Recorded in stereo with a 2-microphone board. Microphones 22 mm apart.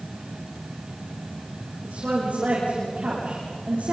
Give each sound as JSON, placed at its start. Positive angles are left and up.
{"t": 1.8, "sound": "a woman speaking", "side_deg": -80, "distance_m": 9.5}